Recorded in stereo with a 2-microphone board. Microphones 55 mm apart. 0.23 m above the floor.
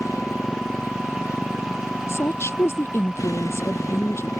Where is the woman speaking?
55° left (ahead or behind).